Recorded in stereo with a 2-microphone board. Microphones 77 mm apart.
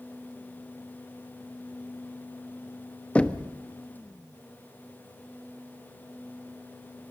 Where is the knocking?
15° left (ahead or behind), 0.9 m.